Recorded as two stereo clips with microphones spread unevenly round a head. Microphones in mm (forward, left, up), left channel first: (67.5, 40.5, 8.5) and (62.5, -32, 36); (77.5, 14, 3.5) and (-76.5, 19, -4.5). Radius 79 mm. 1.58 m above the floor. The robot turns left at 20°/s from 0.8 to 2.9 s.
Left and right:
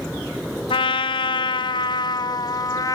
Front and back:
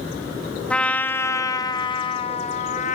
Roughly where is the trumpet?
Left.